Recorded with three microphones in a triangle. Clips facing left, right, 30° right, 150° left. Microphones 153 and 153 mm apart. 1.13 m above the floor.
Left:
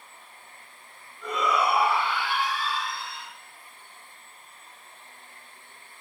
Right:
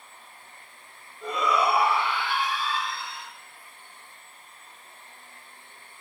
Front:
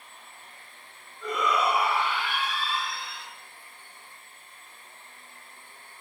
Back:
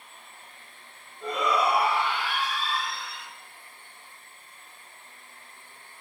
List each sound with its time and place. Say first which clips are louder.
1.2 s a shout: right 1 dB, back 1 dB; 150° right, 7 m; by 3.3 s 165° right, 9 m